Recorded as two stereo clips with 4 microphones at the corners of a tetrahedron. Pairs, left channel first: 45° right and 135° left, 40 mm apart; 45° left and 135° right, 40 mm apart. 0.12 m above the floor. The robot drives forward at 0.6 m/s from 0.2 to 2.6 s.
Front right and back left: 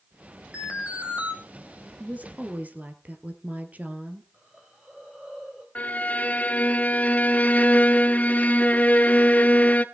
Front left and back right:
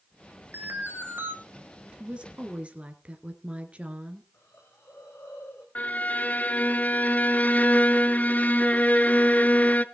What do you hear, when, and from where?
0.5 s an alarm: 165° right, 2.5 m
2.0 s a woman speaking: 170° left, 2.0 m
4.3 s a hiss: 60° left, 4.5 m
5.8 s a violin: straight ahead, 0.7 m